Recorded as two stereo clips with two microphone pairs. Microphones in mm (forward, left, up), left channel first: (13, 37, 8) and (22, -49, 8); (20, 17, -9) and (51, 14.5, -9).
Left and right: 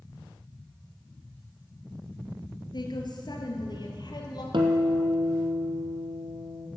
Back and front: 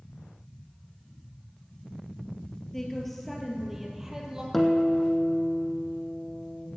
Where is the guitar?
100° right, 1.8 m.